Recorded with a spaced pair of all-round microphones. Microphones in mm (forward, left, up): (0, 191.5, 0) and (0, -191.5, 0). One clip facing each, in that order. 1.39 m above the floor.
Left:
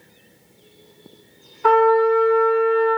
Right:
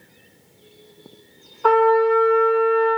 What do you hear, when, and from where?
1.6 s a trumpet: 35° left (ahead or behind), 0.9 m